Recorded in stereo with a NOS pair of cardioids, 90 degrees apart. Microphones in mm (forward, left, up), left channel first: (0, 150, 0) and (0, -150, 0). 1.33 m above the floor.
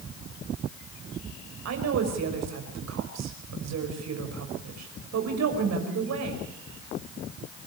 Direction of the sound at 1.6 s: 60° right.